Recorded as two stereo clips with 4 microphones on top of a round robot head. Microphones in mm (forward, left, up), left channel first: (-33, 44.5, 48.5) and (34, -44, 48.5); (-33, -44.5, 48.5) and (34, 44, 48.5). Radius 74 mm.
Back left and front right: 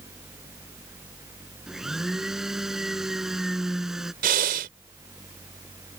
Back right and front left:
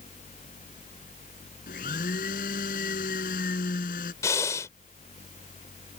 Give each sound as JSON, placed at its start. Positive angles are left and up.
{"t": 1.7, "sound": "a blender", "azimuth_deg": -140}
{"t": 4.2, "sound": "breathing", "azimuth_deg": -60}